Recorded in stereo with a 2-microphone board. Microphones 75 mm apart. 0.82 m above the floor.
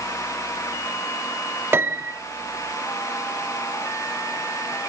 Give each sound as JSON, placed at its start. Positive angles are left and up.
{"t": 1.7, "sound": "a piano", "side_deg": -30, "distance_m": 0.9}